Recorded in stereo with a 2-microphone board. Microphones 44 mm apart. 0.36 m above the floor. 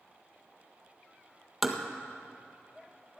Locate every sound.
1.6 s tapping: centre (ahead or behind), 1.5 m